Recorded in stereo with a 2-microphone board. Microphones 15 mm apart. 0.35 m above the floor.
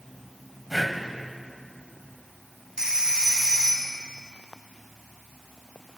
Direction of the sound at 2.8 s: 50° right (ahead or behind).